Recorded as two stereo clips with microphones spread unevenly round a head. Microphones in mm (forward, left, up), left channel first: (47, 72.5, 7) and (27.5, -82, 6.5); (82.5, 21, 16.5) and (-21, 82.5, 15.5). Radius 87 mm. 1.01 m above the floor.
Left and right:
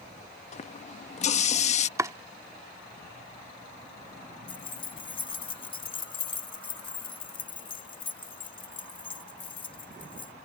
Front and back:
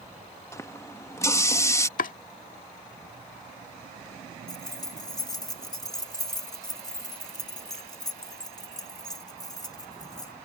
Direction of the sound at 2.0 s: 25° right.